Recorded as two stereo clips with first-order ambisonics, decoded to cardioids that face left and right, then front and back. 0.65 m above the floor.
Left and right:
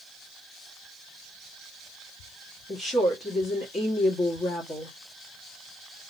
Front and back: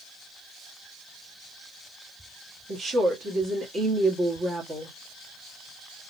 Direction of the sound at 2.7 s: 145° left.